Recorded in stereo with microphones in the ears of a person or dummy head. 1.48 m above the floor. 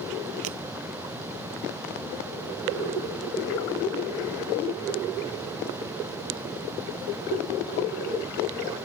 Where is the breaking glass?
70° right (ahead or behind).